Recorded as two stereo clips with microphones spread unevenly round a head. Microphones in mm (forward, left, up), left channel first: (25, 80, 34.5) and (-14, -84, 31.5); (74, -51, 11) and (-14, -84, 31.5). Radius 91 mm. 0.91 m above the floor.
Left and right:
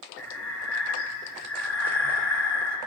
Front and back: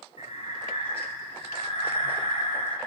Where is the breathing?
80° left, 1.8 m.